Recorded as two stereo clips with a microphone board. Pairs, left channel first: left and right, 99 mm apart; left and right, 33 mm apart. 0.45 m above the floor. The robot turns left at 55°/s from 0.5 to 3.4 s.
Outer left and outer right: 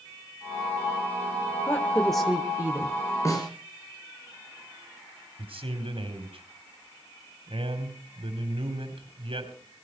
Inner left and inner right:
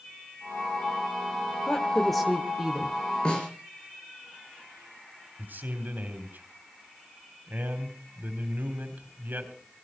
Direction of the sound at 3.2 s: 30° left (ahead or behind).